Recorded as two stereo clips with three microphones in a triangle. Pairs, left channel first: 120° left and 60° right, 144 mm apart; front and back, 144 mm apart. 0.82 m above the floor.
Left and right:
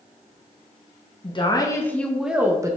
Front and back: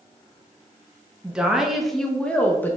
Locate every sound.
1.2 s a woman speaking: 100° left, 1.2 m; by 2.8 s 55° right, 1.0 m